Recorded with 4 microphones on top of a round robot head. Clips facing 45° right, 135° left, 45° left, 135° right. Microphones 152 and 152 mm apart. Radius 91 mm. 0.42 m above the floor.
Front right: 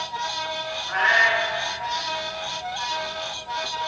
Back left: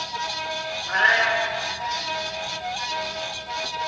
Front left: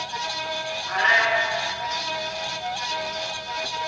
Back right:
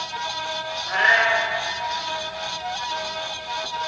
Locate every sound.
0.9 s a cat meowing: 175° left, 0.9 m